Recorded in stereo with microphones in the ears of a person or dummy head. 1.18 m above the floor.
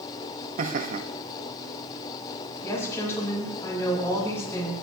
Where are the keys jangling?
No keys jangling in this recording.